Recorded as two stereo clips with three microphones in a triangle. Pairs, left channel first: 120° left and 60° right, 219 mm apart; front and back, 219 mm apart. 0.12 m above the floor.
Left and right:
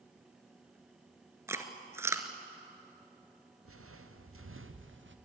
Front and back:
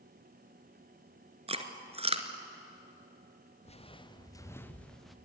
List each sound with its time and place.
1.5 s chewing: 130° right, 1.5 m
3.6 s footsteps: 60° right, 2 m; by 5.2 s 90° right, 2 m